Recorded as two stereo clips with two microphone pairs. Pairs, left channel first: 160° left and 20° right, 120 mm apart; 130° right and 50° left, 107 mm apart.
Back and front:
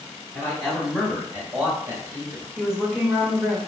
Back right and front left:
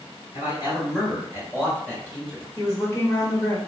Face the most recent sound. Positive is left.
turn(degrees=-100)